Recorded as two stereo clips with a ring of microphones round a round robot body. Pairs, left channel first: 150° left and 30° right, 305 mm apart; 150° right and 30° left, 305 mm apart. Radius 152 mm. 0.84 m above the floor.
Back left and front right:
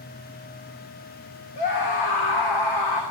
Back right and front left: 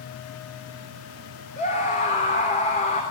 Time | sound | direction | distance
1.6 | a scream | 145° left | 3 m